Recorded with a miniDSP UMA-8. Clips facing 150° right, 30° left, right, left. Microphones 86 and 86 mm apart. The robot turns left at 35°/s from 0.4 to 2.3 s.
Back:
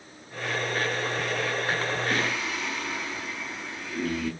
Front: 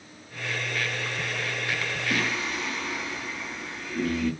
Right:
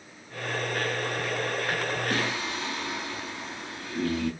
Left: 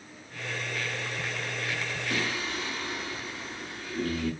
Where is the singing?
55° right, 4.5 m; by 4.3 s 60° right, 4.5 m.